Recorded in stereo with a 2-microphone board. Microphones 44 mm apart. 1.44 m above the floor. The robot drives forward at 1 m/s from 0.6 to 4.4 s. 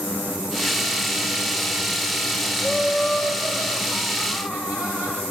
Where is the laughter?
10° right (ahead or behind), 6.5 m.